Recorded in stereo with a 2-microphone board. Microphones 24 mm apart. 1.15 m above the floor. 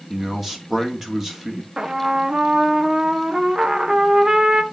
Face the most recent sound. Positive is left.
turn(degrees=-25)  # may be behind; listen again after turning